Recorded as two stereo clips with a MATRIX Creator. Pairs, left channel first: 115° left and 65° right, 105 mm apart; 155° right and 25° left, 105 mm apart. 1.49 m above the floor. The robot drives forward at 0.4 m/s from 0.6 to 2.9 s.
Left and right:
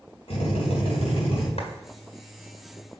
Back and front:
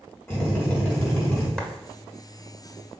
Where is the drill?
130° left, 4 m; by 1.5 s 135° left, 4.5 m.